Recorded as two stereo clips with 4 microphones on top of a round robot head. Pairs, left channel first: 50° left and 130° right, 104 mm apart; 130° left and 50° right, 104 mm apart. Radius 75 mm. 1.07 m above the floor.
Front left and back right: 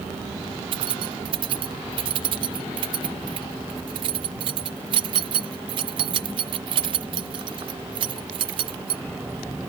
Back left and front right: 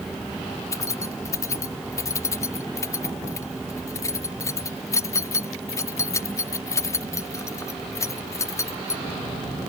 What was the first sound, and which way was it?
Keys jangling, 170° right.